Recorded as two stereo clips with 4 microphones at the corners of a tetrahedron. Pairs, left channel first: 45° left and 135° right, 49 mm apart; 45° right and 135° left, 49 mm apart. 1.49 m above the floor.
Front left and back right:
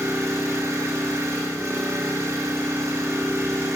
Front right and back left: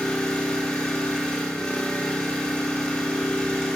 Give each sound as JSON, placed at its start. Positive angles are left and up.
{"t": 0.0, "sound": "an engine running", "azimuth_deg": -125, "distance_m": 4.0}